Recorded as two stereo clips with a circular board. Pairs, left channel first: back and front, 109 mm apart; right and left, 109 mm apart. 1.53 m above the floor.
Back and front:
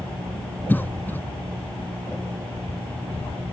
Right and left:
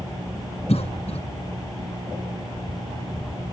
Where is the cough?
105° right.